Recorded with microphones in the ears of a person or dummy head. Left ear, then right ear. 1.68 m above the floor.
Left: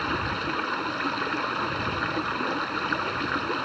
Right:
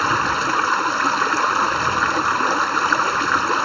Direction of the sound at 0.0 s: 45° right (ahead or behind).